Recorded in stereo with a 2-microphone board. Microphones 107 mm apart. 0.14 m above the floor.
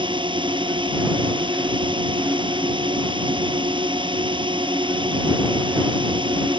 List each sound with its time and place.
0.0 s a drone: 50° right (ahead or behind)